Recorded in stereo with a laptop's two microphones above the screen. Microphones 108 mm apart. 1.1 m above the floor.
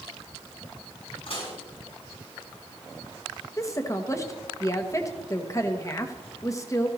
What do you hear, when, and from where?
1.3 s dishes clattering: 60° left (ahead or behind), 6.5 m
3.6 s a woman speaking: 30° left (ahead or behind), 1.1 m